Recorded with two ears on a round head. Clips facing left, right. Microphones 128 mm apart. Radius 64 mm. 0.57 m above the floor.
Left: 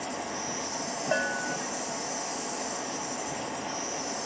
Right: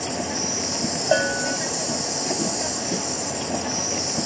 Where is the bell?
50° right (ahead or behind).